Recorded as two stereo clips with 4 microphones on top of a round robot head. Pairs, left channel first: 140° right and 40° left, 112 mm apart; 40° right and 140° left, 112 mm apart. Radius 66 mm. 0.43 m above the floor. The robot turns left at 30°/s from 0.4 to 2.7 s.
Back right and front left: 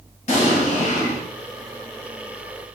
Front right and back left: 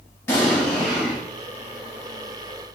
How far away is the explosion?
About 1.6 m.